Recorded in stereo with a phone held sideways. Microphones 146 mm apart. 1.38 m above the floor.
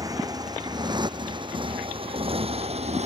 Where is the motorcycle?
25° right (ahead or behind); by 3.1 s 50° right (ahead or behind).